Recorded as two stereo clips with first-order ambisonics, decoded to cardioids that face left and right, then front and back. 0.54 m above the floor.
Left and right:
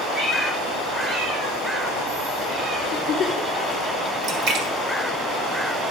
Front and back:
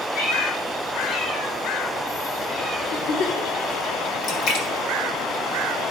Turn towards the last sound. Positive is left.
turn(degrees=-40)